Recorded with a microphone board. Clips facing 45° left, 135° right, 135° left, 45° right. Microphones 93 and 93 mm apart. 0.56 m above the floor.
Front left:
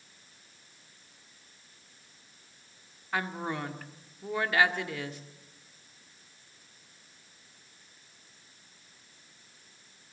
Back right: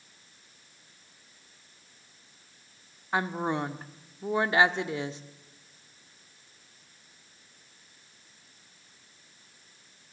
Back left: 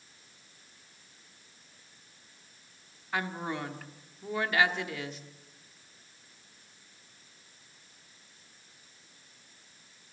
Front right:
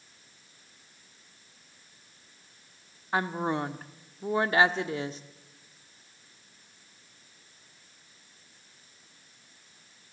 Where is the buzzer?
No buzzer in this recording.